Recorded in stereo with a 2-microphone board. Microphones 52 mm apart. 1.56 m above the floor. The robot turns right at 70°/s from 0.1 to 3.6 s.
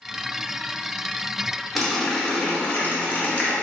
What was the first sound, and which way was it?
A running tap, centre (ahead or behind).